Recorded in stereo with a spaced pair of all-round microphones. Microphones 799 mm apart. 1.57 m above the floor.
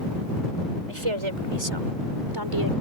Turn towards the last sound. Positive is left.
turn(degrees=-25)  # may be behind; listen again after turning